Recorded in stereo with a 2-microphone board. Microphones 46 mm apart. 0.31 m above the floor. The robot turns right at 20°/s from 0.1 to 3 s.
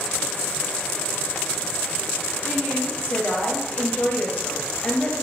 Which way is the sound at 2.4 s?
45° left (ahead or behind).